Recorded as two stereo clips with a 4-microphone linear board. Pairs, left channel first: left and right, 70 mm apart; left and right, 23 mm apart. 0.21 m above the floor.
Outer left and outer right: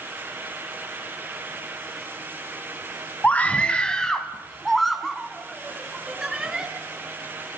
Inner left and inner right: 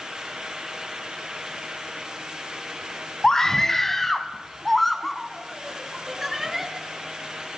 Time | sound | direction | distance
3.2 | a scream | 20° left (ahead or behind) | 1.7 m